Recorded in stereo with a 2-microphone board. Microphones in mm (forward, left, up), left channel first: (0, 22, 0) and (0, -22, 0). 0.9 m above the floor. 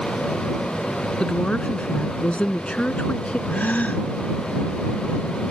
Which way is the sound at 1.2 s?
25° left (ahead or behind).